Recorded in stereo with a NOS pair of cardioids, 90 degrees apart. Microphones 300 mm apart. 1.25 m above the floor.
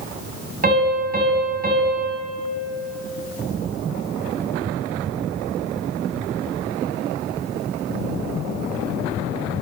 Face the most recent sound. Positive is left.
turn(degrees=-30)